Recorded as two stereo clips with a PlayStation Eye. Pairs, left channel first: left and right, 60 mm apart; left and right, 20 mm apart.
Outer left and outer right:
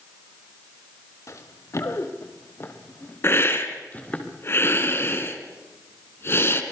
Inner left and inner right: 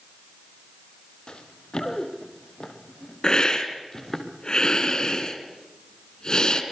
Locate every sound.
1.3 s running footsteps: 55° left (ahead or behind), 4 m; by 4.2 s 25° left (ahead or behind), 5.5 m
3.2 s a hiss: 40° left (ahead or behind), 3 m